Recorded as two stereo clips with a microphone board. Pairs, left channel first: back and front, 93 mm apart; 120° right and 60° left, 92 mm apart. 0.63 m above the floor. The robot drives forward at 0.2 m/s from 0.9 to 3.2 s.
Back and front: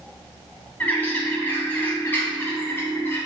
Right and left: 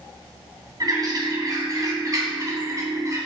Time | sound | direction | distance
0.8 | a bird | 110° left | 2.5 m